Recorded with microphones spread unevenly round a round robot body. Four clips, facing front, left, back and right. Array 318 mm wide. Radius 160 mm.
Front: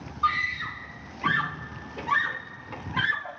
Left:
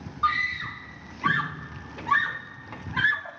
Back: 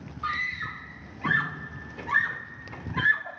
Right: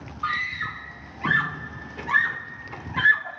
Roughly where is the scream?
Ahead left.